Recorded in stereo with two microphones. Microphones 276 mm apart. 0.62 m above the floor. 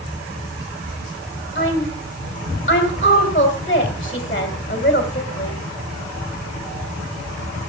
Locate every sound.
1.6 s a woman speaking: 30° left (ahead or behind), 2.5 m